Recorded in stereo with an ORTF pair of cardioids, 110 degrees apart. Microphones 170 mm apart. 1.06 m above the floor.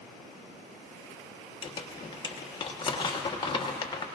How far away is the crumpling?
About 1.3 m.